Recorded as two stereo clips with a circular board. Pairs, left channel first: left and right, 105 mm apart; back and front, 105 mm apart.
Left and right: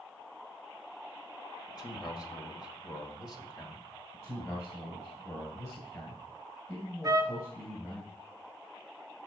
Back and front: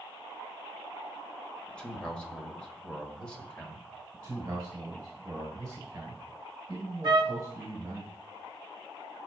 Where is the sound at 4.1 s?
45° left, 1.8 m.